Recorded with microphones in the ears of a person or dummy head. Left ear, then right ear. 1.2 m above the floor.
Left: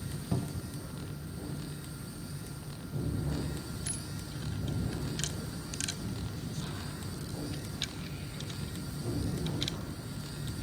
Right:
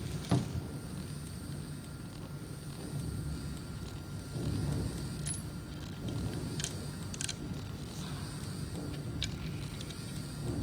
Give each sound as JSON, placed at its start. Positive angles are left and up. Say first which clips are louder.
{"t": 0.3, "sound": "a cupboard door", "louder": "right 3 dB", "side_deg": -65, "distance_m": 0.5}